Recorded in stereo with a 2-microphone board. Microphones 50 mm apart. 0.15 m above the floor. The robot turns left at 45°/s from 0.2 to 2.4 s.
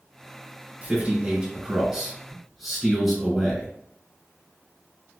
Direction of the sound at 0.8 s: 110° right.